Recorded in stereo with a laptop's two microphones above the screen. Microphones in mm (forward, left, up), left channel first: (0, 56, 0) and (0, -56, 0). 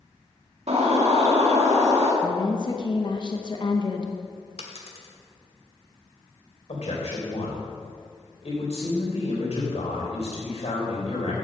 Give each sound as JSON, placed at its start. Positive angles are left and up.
{"t": 0.7, "sound": "a bird", "side_deg": -75, "distance_m": 1.5}
{"t": 2.2, "sound": "a woman speaking", "side_deg": 45, "distance_m": 0.8}
{"t": 4.6, "sound": "a dropped coin", "side_deg": 65, "distance_m": 1.3}
{"t": 6.7, "sound": "a man speaking", "side_deg": 65, "distance_m": 3.5}